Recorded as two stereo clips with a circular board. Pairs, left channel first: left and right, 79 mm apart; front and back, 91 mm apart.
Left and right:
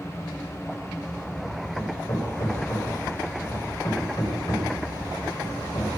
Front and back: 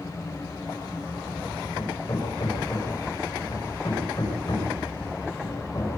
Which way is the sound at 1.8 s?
50° left.